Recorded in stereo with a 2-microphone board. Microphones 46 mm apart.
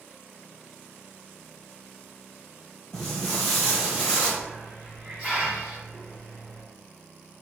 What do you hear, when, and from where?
2.9 s footsteps: 10° left (ahead or behind), 1.2 m; by 4.3 s 10° right (ahead or behind), 1.4 m
4.4 s a hiss: 15° right (ahead or behind), 1.4 m